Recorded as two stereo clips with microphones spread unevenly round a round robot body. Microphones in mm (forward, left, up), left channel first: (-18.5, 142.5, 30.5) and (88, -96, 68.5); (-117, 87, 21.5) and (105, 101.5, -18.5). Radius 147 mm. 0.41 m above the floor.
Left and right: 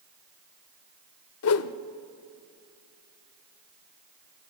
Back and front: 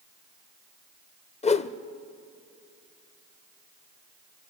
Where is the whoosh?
115° left, 0.7 m.